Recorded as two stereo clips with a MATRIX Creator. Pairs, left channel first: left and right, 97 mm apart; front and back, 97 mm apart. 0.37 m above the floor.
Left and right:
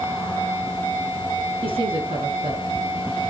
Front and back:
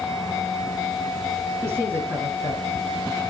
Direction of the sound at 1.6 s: 115° right.